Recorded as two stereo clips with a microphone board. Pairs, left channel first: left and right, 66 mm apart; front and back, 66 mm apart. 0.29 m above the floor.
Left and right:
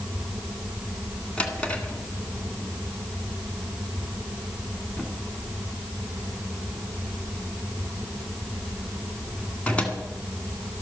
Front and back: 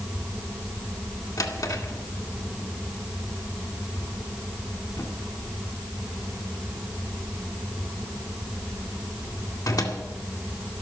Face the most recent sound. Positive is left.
turn(degrees=20)